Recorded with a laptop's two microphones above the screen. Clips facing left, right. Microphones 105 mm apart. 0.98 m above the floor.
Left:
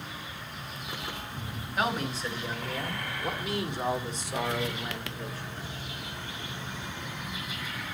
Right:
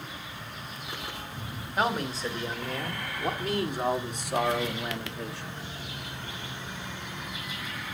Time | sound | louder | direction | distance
1.8 | a man speaking | right 2 dB | 35° right (ahead or behind) | 3 m